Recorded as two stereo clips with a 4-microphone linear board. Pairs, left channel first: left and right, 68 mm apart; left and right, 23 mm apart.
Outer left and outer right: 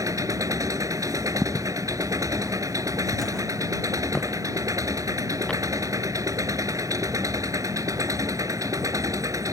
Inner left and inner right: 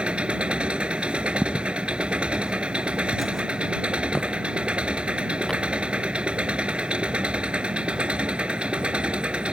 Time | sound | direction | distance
0.0 | an engine running | 55° right (ahead or behind) | ?
1.4 | footsteps | 25° right (ahead or behind) | ?